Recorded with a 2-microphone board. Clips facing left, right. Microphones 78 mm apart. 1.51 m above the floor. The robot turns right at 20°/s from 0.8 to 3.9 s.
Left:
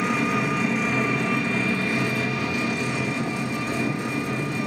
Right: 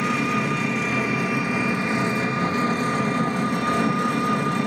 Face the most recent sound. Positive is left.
turn(degrees=-120)